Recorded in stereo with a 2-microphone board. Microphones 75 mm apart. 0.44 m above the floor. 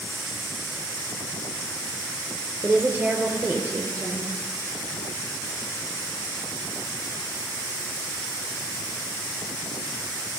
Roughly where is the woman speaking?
Right.